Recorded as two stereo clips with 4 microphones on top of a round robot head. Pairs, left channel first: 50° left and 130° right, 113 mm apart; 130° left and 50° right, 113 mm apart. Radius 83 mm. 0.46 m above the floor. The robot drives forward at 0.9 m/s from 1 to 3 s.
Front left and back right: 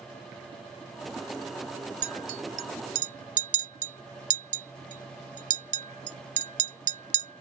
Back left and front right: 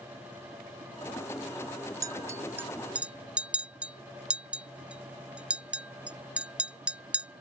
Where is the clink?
110° right; by 7.4 s 130° right.